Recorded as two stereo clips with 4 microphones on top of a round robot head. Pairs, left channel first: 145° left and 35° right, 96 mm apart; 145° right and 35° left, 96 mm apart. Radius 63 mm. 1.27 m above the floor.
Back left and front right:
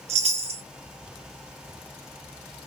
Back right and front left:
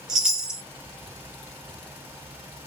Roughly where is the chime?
Ahead right.